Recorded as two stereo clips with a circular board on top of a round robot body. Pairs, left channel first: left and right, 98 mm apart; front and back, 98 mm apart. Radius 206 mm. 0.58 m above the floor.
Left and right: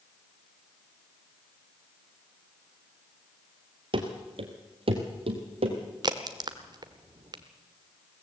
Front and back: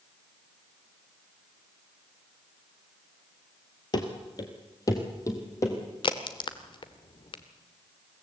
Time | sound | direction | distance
3.9 | running footsteps | 50° right | 1.2 m
6.0 | a crack | 40° right | 0.9 m